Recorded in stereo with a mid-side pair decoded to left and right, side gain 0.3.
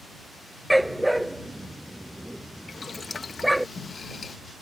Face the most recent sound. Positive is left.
turn(degrees=50)